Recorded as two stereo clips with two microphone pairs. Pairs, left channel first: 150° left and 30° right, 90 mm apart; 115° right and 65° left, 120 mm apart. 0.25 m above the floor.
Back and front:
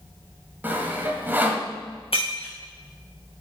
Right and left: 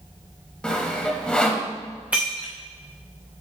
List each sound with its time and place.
0.6 s sawing: 50° right, 1.4 m
2.1 s breaking glass: 145° left, 2.5 m